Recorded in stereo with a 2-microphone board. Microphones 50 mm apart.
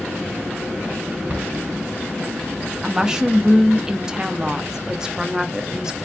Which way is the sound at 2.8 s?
15° right (ahead or behind).